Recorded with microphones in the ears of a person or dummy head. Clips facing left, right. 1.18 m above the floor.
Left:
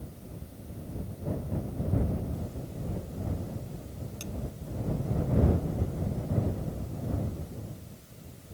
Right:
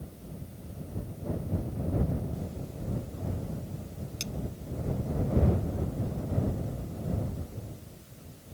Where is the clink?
30° right (ahead or behind).